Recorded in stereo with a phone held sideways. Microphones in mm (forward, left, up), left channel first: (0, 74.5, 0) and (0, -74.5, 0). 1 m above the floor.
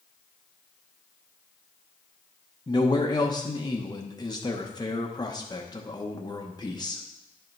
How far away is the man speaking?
About 0.9 m.